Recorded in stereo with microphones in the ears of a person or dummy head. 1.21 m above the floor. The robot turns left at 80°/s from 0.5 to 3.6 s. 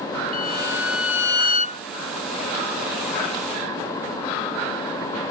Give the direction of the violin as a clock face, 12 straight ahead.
8 o'clock.